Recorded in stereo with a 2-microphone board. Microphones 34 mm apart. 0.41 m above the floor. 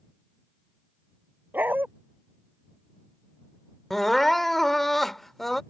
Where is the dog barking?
65° right (ahead or behind).